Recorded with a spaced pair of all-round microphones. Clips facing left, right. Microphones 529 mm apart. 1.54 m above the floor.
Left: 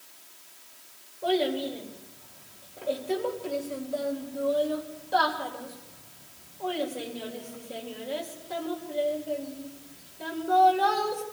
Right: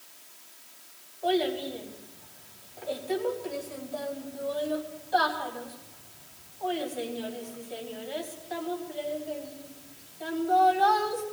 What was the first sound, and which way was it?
A child speaking, 75° left (ahead or behind).